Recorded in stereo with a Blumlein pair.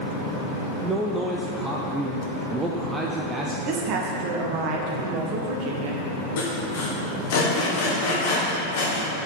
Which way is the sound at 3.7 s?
40° right.